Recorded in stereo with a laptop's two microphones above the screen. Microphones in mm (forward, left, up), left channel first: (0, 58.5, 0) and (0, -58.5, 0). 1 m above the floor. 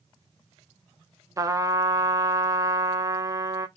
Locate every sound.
1.4 s a trumpet: 25° right (ahead or behind), 0.6 m